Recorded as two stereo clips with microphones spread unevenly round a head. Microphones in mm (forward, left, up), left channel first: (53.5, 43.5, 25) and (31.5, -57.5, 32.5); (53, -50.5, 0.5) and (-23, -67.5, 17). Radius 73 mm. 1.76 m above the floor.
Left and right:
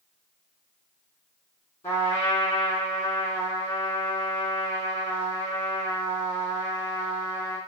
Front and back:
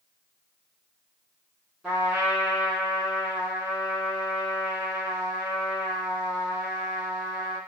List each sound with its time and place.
1.8 s a trumpet: 120° left, 1.5 m